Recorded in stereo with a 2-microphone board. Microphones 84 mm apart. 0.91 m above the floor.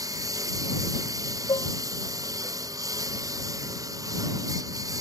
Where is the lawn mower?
45° right (ahead or behind).